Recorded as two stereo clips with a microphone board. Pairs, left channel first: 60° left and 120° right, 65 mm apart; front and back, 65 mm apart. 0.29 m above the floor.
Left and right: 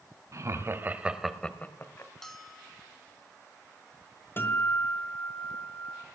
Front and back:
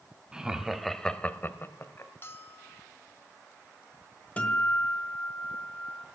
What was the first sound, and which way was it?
Laughter, 105° right.